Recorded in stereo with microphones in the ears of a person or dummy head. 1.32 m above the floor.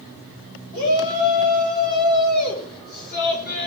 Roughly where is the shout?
Left.